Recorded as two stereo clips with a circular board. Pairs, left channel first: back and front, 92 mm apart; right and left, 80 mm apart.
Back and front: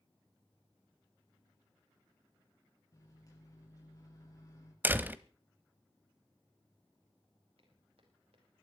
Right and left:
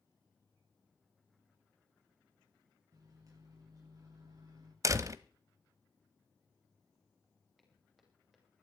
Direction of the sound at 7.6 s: Straight ahead.